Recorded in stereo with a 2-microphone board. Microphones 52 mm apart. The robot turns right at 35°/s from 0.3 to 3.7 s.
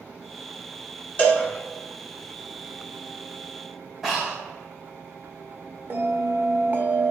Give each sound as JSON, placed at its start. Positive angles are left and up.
{"t": 1.2, "sound": "a cowbell", "side_deg": 35, "distance_m": 1.4}
{"t": 4.0, "sound": "breathing", "side_deg": -5, "distance_m": 1.5}
{"t": 5.9, "sound": "a bell", "side_deg": -45, "distance_m": 0.9}